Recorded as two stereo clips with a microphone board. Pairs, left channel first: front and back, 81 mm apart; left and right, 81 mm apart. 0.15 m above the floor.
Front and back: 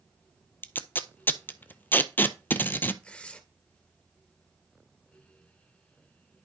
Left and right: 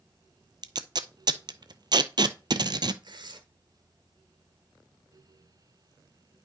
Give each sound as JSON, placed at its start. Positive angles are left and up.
{"t": 0.6, "sound": "tape being pulled", "azimuth_deg": -65, "distance_m": 0.6}
{"t": 3.0, "sound": "tearing paper", "azimuth_deg": -75, "distance_m": 1.3}